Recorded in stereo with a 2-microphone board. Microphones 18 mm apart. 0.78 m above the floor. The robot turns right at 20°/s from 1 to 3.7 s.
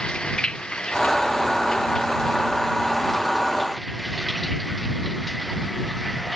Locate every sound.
0.0 s running water: 125° left; by 6.4 s straight behind